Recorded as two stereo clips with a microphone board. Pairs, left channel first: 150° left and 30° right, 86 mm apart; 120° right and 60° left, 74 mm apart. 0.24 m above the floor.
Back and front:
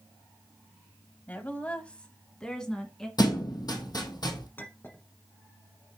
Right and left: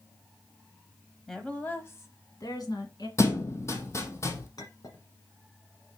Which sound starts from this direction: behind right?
A clink, at 4.6 s.